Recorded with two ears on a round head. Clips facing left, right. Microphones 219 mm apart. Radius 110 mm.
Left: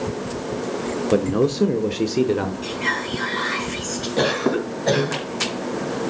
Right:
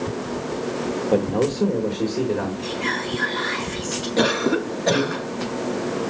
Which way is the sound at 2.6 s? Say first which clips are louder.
Right 1 dB; 15° left (ahead or behind).